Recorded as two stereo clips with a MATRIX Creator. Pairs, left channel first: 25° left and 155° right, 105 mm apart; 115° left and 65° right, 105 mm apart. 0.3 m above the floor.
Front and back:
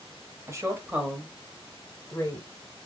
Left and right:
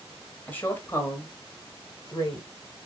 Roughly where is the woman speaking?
Behind.